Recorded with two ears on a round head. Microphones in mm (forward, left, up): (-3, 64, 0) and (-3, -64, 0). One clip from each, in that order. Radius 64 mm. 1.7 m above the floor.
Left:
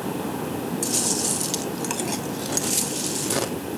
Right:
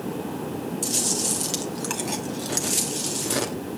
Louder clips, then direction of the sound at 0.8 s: Even; 5° left (ahead or behind).